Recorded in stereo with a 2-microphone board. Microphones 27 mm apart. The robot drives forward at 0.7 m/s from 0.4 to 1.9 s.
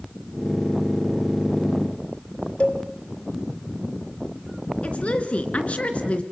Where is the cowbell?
50° left (ahead or behind), 1.8 m.